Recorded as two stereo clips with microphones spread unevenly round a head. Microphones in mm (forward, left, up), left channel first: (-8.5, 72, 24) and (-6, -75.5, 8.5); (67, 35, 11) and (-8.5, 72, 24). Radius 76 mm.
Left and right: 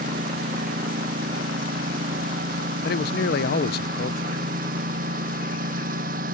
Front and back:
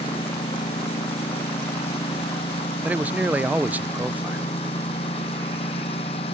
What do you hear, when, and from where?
0.0 s a lawn mower: 50° right
2.8 s a man speaking: 80° left